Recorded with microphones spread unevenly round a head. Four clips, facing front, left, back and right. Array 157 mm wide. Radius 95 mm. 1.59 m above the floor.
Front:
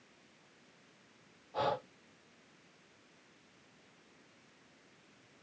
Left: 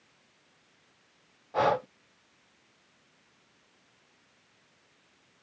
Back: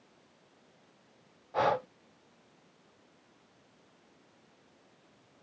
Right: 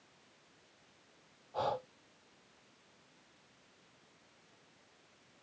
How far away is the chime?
No chime in this recording.